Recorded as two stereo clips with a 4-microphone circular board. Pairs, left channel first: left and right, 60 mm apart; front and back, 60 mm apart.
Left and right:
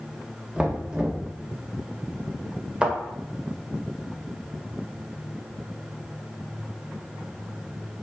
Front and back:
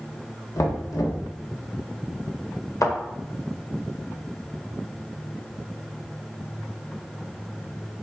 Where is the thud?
15° right, 1.9 m.